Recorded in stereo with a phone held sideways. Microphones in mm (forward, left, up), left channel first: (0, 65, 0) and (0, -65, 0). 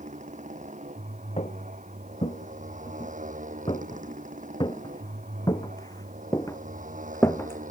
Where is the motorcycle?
70° right (ahead or behind); by 7.7 s 85° right.